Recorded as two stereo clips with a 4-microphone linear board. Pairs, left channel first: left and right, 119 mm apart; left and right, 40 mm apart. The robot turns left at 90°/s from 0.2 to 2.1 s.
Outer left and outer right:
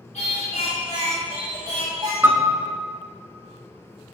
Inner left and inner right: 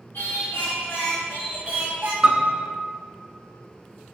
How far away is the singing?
About 3 m.